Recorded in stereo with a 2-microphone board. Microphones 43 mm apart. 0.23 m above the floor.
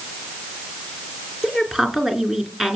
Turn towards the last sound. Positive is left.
turn(degrees=-10)  # may be behind; listen again after turning